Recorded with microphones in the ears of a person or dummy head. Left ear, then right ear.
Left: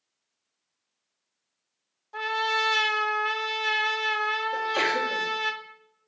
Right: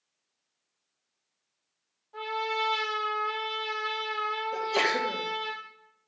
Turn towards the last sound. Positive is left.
turn(degrees=-75)  # may be behind; listen again after turning